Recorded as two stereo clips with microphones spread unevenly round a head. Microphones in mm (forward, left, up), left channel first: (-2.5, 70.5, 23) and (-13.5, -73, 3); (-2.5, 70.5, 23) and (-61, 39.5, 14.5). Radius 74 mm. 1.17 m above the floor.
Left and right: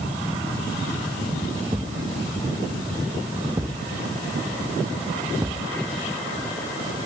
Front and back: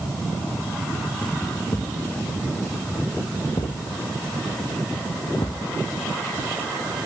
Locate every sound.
1.7 s a thud: 20° right